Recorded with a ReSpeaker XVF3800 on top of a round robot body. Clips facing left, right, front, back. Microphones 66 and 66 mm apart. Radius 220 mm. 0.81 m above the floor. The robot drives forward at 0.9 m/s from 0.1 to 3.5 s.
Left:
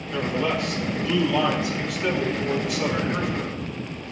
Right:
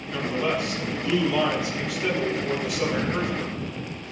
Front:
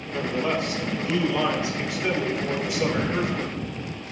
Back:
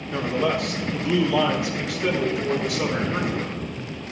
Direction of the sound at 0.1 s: 170° right.